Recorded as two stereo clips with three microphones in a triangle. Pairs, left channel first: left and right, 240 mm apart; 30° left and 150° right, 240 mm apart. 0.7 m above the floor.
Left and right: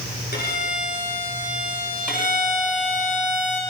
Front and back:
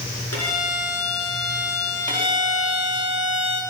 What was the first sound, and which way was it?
A violin, 40° left.